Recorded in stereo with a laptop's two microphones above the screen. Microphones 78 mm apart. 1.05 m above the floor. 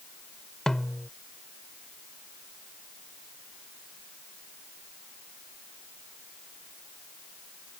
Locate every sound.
0.7 s a snare drum: 10° left (ahead or behind)